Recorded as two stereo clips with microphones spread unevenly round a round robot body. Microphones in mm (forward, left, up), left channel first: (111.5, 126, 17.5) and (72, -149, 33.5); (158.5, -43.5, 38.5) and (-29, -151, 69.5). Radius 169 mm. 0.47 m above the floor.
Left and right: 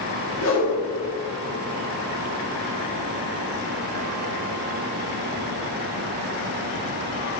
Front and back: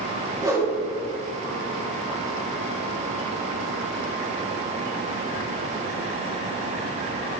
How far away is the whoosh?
About 3.5 m.